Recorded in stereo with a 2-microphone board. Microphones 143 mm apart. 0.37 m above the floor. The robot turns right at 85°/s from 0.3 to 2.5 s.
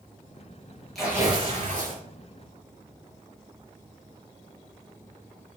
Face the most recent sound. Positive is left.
turn(degrees=-50)